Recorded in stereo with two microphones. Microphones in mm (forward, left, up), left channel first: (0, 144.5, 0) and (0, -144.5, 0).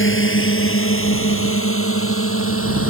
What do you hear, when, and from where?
0.0 s a drone: 45° left (ahead or behind); by 2.9 s 50° left (ahead or behind)